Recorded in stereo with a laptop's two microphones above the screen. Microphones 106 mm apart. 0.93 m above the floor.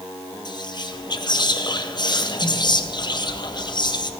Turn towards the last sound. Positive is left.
turn(degrees=45)  # may be behind; listen again after turning